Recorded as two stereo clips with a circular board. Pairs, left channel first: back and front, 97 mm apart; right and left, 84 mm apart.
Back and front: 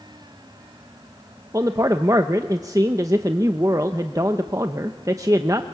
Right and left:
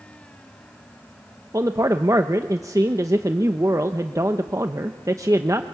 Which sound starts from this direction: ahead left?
A man speaking, at 1.5 s.